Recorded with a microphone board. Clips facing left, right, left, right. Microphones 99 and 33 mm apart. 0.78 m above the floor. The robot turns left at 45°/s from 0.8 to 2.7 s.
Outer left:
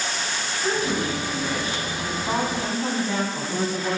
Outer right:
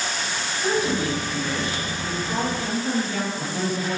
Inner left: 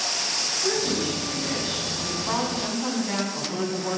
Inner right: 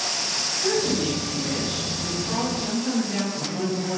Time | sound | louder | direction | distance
0.6 | a woman speaking | outer right 2 dB, inner right 3 dB | 165° right | 7.5 m